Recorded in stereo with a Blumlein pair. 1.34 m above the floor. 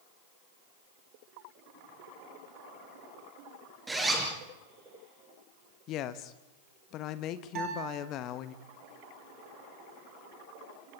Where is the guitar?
35° right, 7.5 m.